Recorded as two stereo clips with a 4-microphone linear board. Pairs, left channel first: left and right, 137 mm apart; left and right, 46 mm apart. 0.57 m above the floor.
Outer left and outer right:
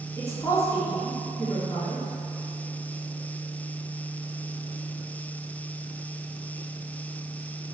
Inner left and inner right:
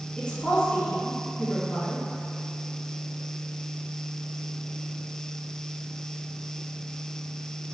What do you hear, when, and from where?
0.2 s a woman speaking: 25° left (ahead or behind), 1.5 m